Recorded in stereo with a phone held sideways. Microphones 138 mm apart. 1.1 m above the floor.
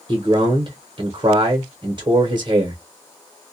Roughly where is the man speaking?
Right.